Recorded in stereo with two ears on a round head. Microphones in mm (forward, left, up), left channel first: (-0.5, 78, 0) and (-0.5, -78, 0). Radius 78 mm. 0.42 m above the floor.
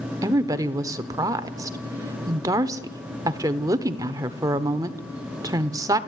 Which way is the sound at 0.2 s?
20° right (ahead or behind).